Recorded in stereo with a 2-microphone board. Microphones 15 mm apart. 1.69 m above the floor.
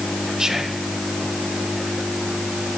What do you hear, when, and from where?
0.4 s whispering: 40° right (ahead or behind), 1.7 m